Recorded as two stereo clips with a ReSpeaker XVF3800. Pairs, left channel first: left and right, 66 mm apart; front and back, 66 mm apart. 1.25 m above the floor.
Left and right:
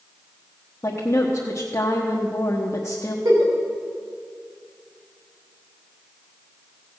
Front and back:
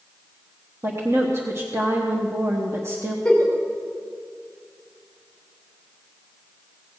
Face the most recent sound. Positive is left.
turn(degrees=-85)